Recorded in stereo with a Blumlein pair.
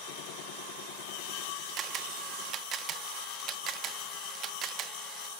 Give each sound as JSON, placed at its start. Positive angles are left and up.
{"t": 1.8, "sound": "a camera shutter", "azimuth_deg": -30}